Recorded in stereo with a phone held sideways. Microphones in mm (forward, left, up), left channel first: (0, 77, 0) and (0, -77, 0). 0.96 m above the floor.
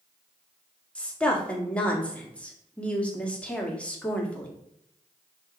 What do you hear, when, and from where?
0.9 s a woman speaking: 10° left (ahead or behind), 1.9 m